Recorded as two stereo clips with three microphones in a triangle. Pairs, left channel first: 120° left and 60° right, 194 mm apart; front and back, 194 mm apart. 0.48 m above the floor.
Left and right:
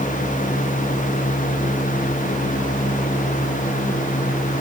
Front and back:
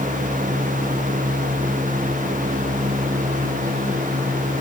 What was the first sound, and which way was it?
Only background noise.